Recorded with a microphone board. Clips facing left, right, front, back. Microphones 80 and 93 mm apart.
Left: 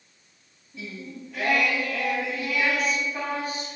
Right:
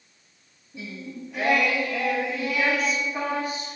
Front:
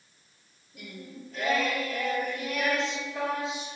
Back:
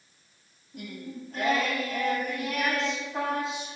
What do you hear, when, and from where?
0.7 s singing: 165° right, 2 m